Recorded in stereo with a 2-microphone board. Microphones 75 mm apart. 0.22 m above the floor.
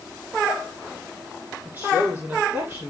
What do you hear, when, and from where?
1.6 s a woman speaking: 25° right (ahead or behind), 8.5 m